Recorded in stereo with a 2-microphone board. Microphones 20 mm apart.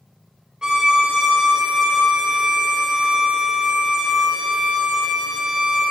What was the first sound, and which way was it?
A violin, 30° right (ahead or behind).